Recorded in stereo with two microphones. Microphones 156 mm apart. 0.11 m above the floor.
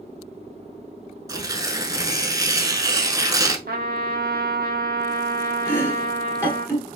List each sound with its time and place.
1.3 s tearing paper: 20° right (ahead or behind), 0.6 m
3.7 s a trumpet: 75° right (ahead or behind), 0.6 m
5.7 s chopping: 15° left (ahead or behind), 1.7 m